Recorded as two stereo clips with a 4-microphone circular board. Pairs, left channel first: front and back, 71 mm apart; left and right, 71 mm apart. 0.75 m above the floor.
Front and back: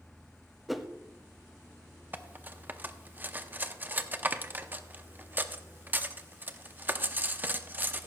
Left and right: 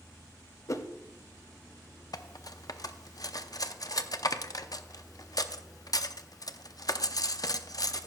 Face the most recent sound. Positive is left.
turn(degrees=120)